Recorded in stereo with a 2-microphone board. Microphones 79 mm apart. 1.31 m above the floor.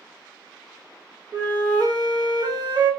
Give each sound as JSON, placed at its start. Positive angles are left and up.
{"t": 1.3, "sound": "a flute", "side_deg": -55, "distance_m": 0.9}